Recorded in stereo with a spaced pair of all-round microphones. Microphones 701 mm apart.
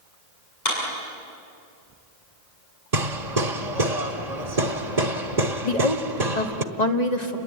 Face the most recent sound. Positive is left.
turn(degrees=70)  # may be behind; listen again after turning